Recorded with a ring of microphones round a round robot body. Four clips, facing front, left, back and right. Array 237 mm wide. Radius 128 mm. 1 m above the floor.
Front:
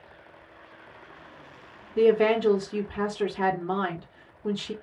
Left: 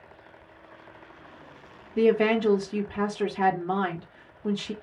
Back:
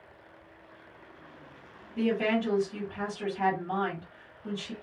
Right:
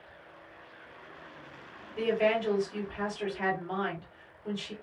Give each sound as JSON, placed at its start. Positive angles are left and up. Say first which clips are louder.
{"t": 2.0, "sound": "a woman speaking", "louder": "left 6 dB, front 7 dB", "azimuth_deg": 55, "distance_m": 1.6}